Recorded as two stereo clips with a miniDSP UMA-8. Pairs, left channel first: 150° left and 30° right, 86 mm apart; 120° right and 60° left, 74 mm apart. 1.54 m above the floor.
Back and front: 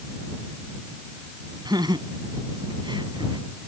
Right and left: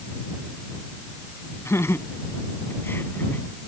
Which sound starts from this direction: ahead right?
Laughter, at 1.6 s.